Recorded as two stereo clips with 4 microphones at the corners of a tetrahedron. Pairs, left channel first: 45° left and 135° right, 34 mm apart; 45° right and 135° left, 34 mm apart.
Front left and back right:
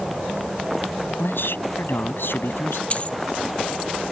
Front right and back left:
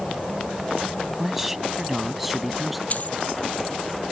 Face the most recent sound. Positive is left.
turn(degrees=-5)